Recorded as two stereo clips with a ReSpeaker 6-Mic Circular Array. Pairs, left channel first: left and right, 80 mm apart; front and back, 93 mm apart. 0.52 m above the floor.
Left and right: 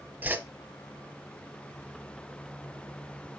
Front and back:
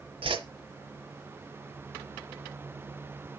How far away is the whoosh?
About 1.2 m.